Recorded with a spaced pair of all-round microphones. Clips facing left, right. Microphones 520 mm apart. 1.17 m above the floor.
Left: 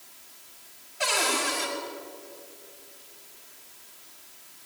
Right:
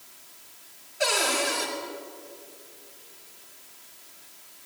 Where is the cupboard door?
25° left (ahead or behind), 5 m.